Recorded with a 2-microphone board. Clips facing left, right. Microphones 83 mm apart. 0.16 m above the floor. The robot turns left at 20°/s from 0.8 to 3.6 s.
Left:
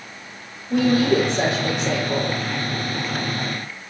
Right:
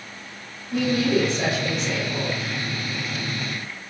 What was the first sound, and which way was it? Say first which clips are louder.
A woman speaking: left 4 dB; 115° left.